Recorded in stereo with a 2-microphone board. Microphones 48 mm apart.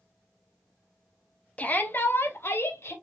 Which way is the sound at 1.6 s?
30° left (ahead or behind).